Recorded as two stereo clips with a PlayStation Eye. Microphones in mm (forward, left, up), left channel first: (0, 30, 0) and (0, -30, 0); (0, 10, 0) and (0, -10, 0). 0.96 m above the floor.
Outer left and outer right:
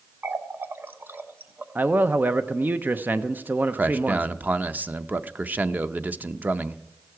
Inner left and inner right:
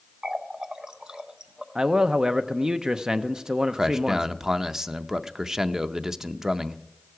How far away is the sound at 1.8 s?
About 0.7 m.